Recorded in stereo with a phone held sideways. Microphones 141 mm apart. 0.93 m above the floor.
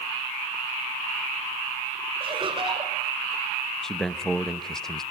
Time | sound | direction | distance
2.2 | laughter | 35° right (ahead or behind) | 3 m
3.8 | a man speaking | 5° left (ahead or behind) | 0.8 m